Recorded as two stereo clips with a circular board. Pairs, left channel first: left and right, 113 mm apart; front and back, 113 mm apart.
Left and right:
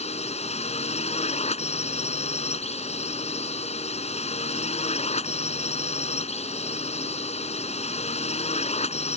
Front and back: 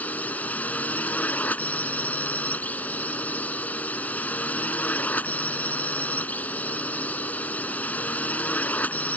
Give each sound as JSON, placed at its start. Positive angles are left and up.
{"t": 0.0, "sound": "a drone", "azimuth_deg": 75}